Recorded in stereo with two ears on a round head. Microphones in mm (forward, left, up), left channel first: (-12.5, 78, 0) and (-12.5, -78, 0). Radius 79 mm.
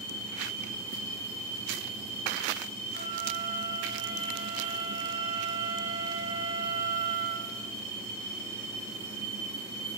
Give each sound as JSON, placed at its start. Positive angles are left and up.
{"t": 2.9, "sound": "a flute", "side_deg": -75, "distance_m": 6.0}